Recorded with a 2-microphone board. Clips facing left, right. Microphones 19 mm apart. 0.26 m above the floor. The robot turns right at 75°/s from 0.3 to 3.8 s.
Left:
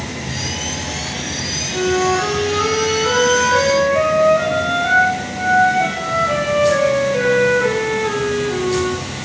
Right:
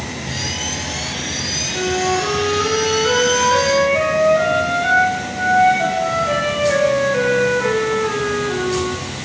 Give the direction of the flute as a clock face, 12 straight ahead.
10 o'clock.